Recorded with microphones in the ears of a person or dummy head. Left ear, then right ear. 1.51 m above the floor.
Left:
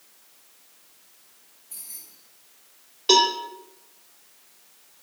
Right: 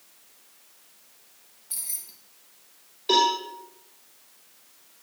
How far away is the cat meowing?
No cat meowing in this recording.